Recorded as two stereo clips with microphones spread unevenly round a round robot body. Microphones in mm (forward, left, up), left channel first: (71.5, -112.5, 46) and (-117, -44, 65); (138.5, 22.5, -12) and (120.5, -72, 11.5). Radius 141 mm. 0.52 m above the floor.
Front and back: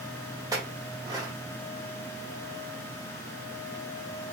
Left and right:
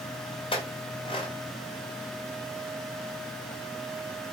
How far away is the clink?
About 1.4 m.